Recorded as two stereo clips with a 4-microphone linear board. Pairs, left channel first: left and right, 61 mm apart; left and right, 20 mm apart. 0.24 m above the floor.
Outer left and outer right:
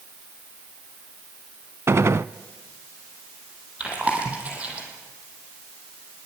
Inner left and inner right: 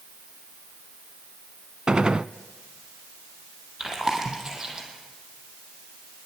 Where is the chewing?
25° right (ahead or behind), 5.5 m.